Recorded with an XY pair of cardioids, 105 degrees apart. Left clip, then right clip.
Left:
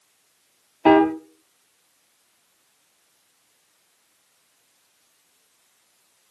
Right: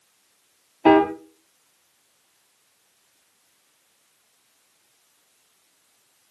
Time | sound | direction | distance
0.8 | a piano | straight ahead | 0.7 m